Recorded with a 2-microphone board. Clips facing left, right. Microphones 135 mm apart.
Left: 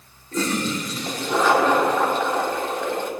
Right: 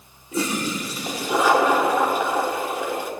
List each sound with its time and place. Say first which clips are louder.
0.3 s a toilet flushing: left 1 dB; 10° right (ahead or behind), 1.3 m